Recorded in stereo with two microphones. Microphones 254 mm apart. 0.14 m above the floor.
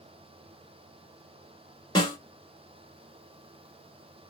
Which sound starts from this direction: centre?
A snare drum, at 1.9 s.